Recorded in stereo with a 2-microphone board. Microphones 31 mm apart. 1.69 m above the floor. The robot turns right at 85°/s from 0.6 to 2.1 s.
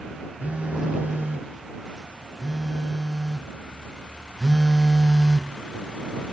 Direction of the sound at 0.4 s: 120° right.